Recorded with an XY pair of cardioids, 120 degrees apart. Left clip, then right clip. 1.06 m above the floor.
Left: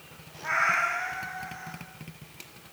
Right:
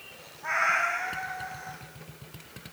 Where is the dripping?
No dripping in this recording.